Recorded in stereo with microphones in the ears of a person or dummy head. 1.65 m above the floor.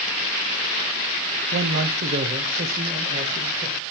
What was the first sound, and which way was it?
A man speaking, 70° right (ahead or behind).